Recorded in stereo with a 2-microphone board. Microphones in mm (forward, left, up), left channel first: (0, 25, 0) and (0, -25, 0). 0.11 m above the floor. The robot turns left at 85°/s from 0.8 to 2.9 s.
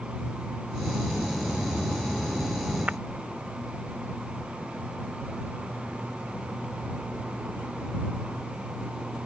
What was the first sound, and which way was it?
Breaking glass, 30° right (ahead or behind).